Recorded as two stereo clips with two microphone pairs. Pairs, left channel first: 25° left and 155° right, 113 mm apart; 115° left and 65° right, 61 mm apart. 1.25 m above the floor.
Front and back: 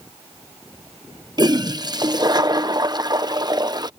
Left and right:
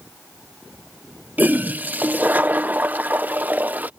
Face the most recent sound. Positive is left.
turn(degrees=-115)